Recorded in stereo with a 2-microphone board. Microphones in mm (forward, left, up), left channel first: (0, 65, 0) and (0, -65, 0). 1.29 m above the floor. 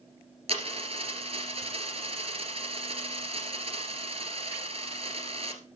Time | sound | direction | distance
0.5 | a dropped coin | 50° right (ahead or behind) | 2.5 m